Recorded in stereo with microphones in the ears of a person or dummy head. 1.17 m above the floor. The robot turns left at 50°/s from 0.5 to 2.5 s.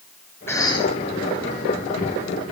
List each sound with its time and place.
0.5 s a cough: 15° left (ahead or behind), 3 m; by 0.9 s 35° left (ahead or behind), 3 m